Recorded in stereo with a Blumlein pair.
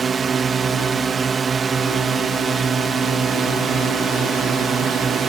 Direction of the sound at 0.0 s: 15° right.